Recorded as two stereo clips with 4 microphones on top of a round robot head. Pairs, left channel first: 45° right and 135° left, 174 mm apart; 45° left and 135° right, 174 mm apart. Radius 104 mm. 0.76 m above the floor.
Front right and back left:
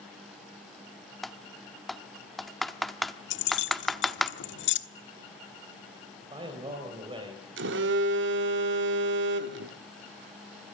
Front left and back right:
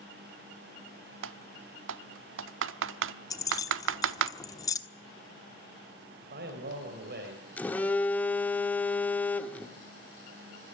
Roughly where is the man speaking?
Behind.